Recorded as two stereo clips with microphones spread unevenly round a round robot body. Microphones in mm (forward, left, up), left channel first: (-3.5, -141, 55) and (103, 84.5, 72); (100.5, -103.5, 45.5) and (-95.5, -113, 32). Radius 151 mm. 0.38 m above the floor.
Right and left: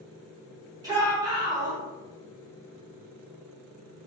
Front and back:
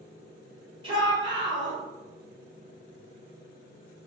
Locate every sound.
0.8 s a shout: 135° left, 1.1 m